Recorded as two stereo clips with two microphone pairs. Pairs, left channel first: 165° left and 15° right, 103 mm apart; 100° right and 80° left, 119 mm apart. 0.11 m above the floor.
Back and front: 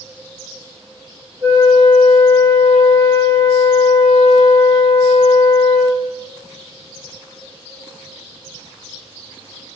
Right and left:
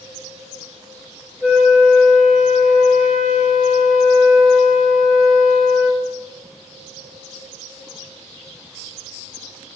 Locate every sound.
1.4 s a flute: 5° right, 2.5 m